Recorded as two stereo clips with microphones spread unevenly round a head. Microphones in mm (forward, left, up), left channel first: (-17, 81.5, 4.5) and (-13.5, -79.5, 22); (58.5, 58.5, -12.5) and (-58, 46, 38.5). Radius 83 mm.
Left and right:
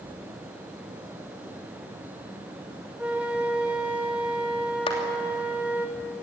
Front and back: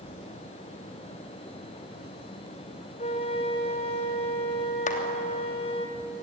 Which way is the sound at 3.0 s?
35° right.